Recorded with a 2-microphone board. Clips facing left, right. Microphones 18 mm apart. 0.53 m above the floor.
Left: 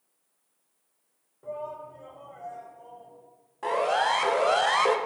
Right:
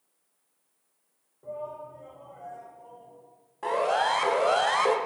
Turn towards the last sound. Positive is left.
turn(degrees=15)  # may be behind; listen again after turning